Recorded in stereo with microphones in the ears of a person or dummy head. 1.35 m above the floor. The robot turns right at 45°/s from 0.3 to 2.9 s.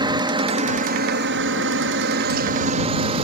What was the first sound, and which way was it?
A helicopter, 150° right.